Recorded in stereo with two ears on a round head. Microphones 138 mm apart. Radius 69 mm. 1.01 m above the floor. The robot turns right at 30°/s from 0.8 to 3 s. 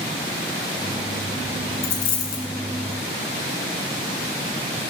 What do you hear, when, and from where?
1.8 s a dropped coin: 65° left (ahead or behind), 2 m; by 2.5 s 55° left (ahead or behind), 2 m